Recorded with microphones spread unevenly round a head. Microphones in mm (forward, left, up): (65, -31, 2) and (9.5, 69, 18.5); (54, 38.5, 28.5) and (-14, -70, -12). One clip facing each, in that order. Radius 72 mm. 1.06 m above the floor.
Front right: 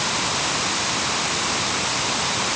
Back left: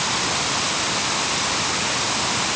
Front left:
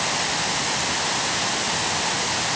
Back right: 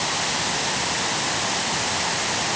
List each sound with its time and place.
Only background noise.